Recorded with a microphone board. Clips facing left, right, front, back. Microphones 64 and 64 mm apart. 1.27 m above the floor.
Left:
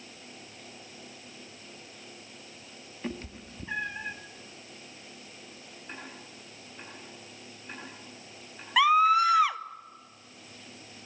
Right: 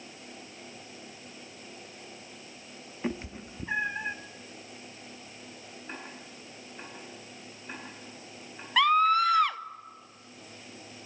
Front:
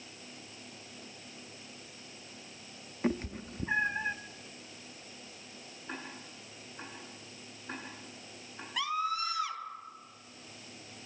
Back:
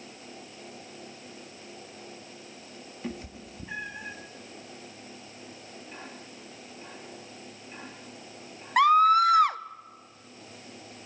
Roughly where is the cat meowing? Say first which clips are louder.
Right 3 dB, front 6 dB; ahead right.